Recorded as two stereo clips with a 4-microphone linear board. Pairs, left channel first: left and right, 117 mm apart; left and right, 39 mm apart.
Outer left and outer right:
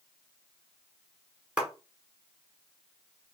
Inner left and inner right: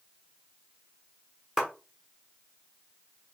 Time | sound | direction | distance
1.6 | a clap | 10° right (ahead or behind) | 1.8 m